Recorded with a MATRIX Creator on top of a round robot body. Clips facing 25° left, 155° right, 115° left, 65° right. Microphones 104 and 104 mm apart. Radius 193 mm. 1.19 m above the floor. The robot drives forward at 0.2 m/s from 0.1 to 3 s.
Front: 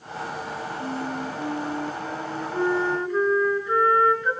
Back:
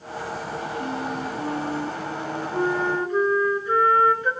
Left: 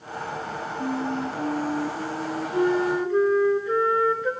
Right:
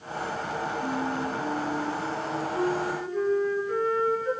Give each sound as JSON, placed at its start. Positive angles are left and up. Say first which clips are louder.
{"t": 0.8, "sound": "a flute", "louder": "even, left 5 dB", "azimuth_deg": 130, "distance_m": 2.5}